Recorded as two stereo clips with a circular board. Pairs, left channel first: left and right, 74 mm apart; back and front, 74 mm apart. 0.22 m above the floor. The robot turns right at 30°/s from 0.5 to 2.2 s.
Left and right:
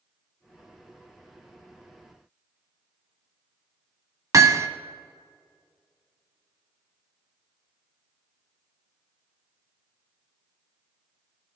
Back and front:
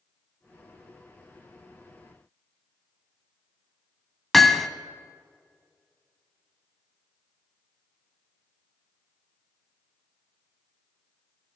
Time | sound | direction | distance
4.3 | hammering | 95° right | 0.6 m